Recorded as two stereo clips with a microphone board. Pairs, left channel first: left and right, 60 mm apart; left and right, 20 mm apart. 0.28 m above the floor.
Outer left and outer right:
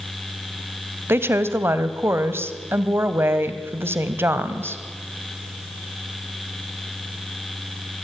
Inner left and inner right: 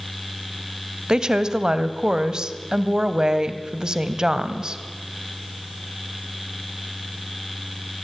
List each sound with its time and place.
1.1 s a woman speaking: 40° right (ahead or behind), 1.8 m